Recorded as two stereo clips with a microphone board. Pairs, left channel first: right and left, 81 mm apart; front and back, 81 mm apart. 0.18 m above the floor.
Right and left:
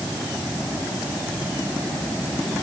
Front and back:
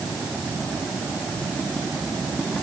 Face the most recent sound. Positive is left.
No sound to turn to.